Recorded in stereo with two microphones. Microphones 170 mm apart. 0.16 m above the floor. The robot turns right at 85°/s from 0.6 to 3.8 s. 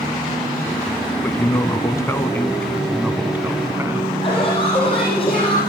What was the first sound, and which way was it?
A man speaking, 10° left (ahead or behind).